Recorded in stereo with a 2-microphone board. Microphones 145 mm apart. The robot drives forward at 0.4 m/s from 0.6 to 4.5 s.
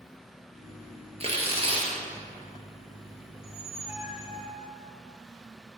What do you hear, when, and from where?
1.2 s tearing paper: 45° right (ahead or behind), 1.5 m; by 1.9 s 40° right (ahead or behind), 1.6 m
3.3 s a squeak: 20° right (ahead or behind), 1.3 m; by 4.7 s 25° right (ahead or behind), 1.1 m